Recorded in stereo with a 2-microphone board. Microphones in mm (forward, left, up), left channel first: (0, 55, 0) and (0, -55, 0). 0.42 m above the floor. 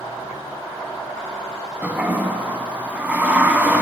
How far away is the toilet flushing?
About 1.0 m.